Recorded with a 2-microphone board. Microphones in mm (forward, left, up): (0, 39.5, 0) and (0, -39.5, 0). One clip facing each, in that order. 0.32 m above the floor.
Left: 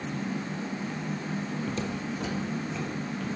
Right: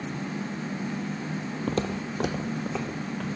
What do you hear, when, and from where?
1.7 s footsteps: 55° right (ahead or behind), 0.5 m; by 3.3 s 80° right, 1.8 m